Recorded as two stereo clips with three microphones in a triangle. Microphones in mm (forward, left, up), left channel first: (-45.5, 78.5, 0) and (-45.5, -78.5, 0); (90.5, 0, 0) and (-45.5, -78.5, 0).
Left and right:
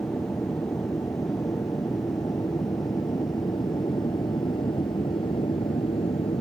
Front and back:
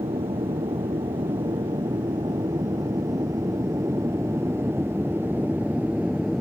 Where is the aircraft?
160° left; by 6.4 s 125° left.